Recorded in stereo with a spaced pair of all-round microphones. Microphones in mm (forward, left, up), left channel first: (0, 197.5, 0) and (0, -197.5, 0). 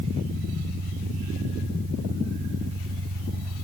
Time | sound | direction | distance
0.0 | an engine running | 60° right (ahead or behind) | ?